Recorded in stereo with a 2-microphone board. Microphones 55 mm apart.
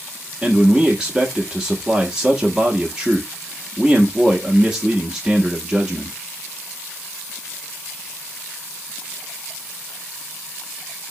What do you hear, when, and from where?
0.4 s a man speaking: 15° right (ahead or behind), 0.6 m